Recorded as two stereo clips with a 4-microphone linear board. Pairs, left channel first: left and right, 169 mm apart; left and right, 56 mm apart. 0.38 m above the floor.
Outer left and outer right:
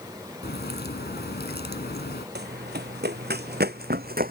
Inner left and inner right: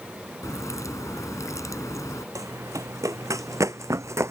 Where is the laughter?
No laughter in this recording.